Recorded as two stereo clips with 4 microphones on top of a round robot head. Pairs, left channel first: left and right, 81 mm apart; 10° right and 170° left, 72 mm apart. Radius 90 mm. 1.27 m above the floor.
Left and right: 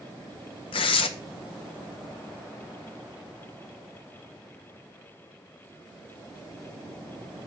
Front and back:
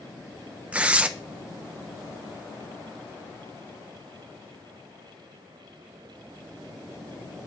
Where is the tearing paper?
95° left, 0.5 m.